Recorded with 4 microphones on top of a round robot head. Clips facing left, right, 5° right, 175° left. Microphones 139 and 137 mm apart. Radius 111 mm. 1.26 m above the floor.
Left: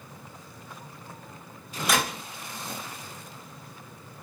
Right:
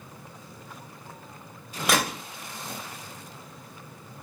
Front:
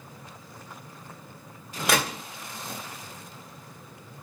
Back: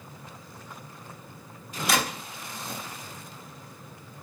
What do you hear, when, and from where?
1.9 s a gunshot: 50° right, 1.6 m